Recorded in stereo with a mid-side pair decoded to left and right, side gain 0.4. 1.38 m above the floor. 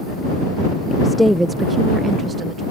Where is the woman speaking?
30° left; by 2.6 s 55° right.